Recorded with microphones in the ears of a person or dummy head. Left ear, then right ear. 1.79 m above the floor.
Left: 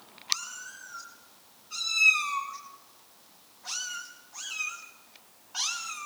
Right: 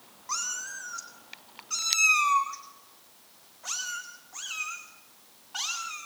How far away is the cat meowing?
About 4 m.